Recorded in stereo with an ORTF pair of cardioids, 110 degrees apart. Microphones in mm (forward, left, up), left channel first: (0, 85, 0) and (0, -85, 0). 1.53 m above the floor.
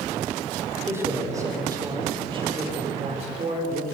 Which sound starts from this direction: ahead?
A man speaking, at 0.9 s.